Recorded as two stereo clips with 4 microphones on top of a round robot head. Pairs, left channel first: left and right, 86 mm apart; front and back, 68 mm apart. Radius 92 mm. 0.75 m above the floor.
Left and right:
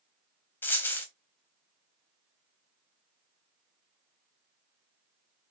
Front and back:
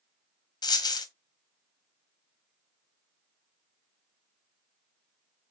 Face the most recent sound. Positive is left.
turn(degrees=20)